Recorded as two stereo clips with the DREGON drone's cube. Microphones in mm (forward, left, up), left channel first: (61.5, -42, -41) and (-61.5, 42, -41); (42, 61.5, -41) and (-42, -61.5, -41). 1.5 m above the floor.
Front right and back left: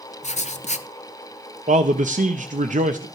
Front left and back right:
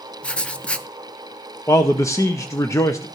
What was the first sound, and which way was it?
Writing, 25° right.